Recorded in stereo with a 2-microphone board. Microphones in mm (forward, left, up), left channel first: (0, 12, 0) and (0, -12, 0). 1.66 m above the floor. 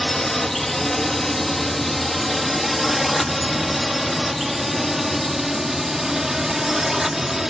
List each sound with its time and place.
0.0 s a drone: 10° left (ahead or behind); by 7.5 s 15° right (ahead or behind)